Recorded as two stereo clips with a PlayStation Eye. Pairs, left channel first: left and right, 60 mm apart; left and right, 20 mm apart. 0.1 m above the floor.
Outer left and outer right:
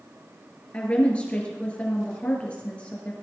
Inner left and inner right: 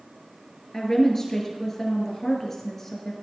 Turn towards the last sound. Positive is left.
turn(degrees=20)  # may be behind; listen again after turning